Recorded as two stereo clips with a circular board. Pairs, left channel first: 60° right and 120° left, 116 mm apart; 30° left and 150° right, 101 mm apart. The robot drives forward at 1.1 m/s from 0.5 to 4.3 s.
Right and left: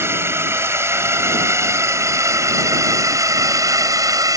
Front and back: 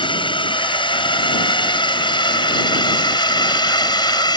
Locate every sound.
0.0 s a drone: 55° left; by 4.4 s 65° left